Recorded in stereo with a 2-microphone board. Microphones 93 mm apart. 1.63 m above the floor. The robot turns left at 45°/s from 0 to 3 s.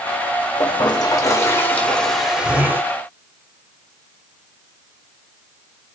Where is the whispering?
I don't hear whispering.